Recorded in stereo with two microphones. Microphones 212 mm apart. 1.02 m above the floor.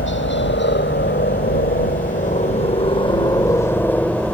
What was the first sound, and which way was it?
A helicopter, 65° left (ahead or behind).